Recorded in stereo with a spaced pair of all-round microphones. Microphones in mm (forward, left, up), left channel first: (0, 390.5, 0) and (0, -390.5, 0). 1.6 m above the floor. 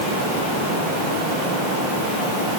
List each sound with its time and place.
Only background noise.